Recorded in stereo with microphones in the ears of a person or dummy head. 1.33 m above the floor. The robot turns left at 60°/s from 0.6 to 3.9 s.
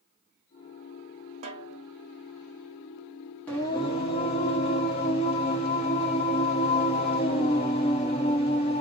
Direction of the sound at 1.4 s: 35° right (ahead or behind).